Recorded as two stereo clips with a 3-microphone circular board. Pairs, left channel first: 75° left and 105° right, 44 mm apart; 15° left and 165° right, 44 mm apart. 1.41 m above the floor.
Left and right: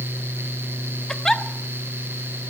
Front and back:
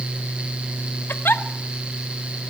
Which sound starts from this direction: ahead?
A giggle, at 1.1 s.